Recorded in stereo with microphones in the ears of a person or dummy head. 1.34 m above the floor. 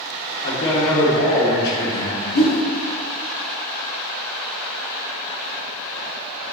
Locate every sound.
0.4 s a man speaking: 55° left (ahead or behind), 2 m
2.3 s a whoosh: 70° left (ahead or behind), 1.1 m